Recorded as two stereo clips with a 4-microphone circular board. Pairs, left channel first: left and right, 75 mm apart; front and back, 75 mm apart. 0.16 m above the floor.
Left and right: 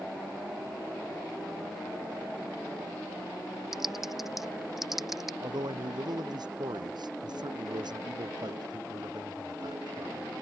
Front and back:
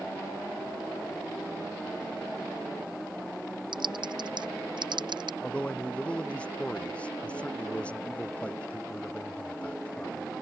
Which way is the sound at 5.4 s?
75° right.